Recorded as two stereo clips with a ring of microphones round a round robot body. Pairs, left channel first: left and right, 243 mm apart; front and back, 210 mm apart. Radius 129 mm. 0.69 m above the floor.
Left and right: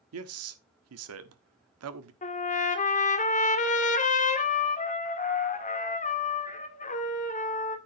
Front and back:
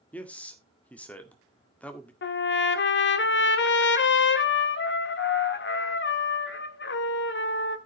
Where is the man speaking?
85° right, 1.4 m.